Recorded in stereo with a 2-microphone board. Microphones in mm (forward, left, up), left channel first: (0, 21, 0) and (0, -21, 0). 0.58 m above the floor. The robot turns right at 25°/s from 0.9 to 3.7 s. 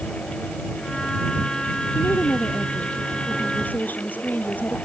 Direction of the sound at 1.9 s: 85° left.